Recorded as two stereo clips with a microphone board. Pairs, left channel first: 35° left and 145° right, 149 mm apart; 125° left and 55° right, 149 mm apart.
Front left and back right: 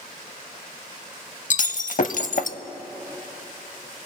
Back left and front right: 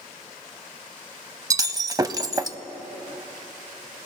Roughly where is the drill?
No drill in this recording.